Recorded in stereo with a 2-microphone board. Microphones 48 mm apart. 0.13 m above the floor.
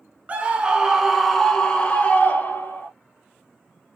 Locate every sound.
0.3 s a scream: 30° right (ahead or behind), 1.2 m; by 2.9 s 45° left (ahead or behind), 1.6 m